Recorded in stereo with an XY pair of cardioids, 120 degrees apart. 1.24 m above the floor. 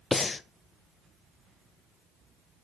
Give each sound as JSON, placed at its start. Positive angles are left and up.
{"t": 0.1, "sound": "breathing", "azimuth_deg": 25, "distance_m": 0.5}